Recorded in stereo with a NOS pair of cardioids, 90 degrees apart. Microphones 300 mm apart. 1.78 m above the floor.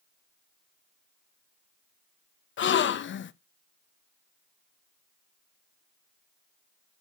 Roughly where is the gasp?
Ahead left.